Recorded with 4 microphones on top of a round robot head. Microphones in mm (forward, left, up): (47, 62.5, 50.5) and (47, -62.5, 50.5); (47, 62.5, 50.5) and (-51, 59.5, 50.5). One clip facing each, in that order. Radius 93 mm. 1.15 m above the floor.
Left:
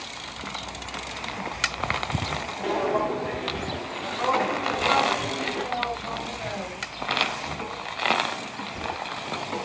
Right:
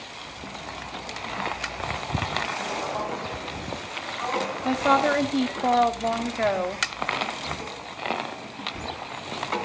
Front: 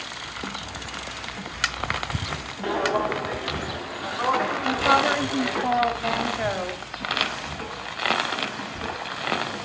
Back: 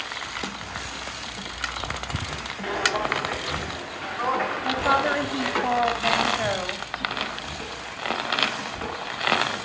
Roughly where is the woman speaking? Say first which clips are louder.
Right 7 dB, front 2 dB; right.